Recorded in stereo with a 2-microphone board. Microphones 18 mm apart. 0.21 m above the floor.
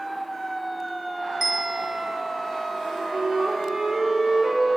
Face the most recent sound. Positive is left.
turn(degrees=-60)  # may be behind; listen again after turning